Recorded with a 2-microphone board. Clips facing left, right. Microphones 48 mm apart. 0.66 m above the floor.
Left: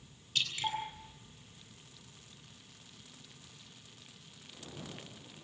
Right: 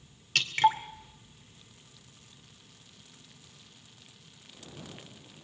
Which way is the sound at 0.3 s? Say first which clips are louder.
Right 11 dB; 65° right (ahead or behind).